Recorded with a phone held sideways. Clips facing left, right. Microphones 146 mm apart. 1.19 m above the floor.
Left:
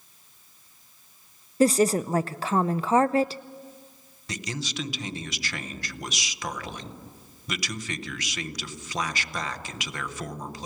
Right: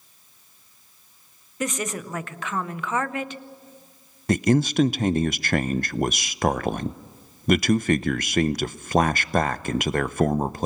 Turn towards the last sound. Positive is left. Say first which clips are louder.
# right 15 dB
turn(degrees=-55)  # may be behind; listen again after turning